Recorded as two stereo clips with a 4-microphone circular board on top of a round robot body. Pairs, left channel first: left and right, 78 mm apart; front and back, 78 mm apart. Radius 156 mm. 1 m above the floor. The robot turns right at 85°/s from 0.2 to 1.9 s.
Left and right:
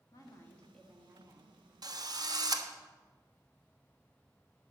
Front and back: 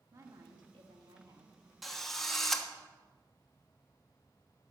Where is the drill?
90° right, 1.3 m; by 2.7 s 85° right, 1.3 m.